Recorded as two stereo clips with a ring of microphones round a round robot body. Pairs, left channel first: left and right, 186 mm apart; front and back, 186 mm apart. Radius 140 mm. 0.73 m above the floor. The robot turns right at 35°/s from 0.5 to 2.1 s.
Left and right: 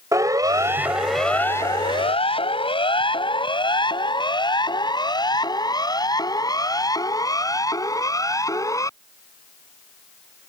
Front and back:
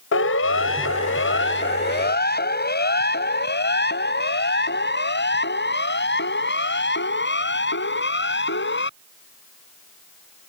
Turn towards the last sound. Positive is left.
turn(degrees=15)